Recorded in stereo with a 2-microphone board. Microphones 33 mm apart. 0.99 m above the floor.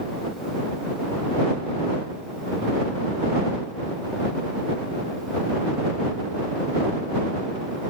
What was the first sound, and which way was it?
Only background noise.